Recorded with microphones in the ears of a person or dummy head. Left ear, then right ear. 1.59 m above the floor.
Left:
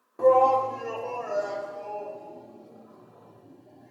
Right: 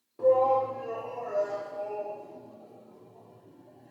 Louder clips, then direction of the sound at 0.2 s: Left 4 dB; 40° left (ahead or behind).